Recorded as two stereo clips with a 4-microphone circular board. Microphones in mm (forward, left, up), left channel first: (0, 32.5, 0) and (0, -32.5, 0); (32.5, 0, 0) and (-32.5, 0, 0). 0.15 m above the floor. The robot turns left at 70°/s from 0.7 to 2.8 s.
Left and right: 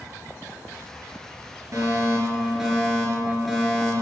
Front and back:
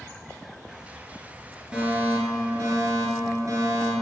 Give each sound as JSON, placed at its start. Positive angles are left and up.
{"t": 1.7, "sound": "a fire alarm", "azimuth_deg": -105, "distance_m": 4.0}